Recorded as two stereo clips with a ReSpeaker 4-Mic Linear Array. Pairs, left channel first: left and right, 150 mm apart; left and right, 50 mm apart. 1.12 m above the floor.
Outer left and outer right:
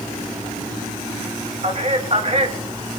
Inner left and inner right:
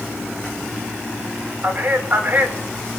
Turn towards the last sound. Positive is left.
turn(degrees=-45)  # may be behind; listen again after turning